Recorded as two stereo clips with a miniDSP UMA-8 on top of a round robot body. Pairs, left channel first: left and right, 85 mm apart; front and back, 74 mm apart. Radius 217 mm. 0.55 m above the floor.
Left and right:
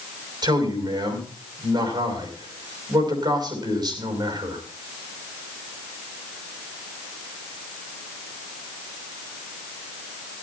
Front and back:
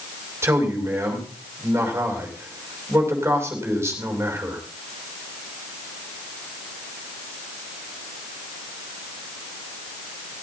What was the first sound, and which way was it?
A man speaking, 125° right.